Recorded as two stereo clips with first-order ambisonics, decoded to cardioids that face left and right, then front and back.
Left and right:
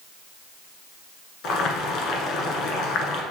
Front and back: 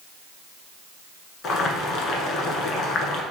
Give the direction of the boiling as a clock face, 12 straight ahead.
10 o'clock.